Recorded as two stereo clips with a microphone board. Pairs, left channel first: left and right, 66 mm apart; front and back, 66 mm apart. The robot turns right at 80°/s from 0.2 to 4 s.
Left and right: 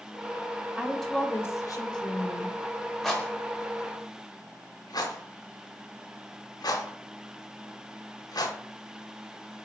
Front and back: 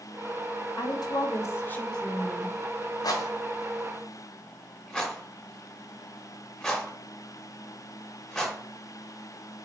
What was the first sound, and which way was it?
A woman speaking, 15° right.